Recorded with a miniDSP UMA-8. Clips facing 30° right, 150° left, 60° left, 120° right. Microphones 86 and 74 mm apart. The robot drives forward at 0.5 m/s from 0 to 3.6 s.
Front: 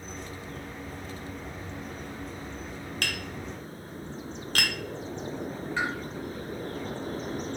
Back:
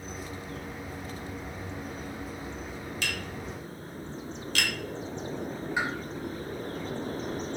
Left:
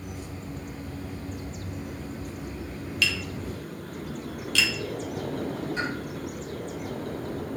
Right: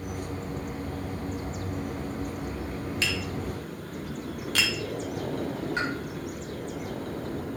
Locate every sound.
3.0 s tapping: 60° right, 1.4 m; by 4.7 s 75° right, 1.3 m
5.8 s a pop: 135° right, 2.5 m